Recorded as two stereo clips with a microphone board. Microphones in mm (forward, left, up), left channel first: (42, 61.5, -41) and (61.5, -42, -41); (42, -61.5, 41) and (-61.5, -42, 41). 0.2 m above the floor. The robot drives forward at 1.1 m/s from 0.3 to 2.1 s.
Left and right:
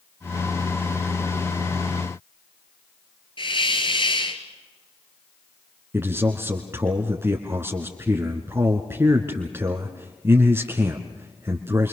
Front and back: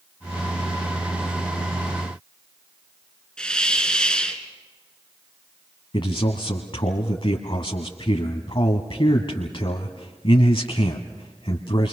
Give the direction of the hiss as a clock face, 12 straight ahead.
10 o'clock.